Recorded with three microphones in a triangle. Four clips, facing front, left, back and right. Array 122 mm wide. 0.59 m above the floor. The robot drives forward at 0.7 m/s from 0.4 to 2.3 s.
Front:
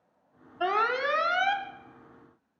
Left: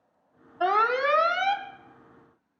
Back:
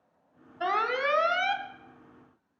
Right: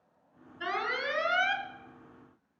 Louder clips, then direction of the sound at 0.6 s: Left 10 dB, front 1 dB; 75° left.